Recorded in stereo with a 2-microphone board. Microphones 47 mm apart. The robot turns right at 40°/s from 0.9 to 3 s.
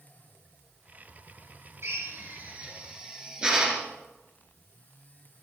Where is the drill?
65° right (ahead or behind), 2.5 m; by 3.9 s 20° right (ahead or behind), 2.5 m.